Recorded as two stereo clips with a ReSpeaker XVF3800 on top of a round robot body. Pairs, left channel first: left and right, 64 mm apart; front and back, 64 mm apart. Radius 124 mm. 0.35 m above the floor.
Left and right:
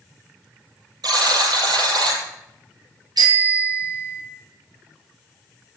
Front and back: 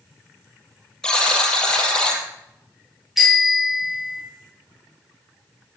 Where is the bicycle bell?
95° right, 7 m.